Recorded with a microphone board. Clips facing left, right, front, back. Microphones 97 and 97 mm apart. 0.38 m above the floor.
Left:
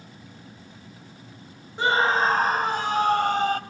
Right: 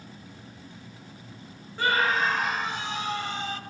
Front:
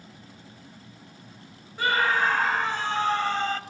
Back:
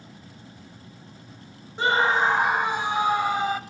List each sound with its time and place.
1.8 s a scream: 140° left, 1.0 m; by 3.6 s 105° left, 1.8 m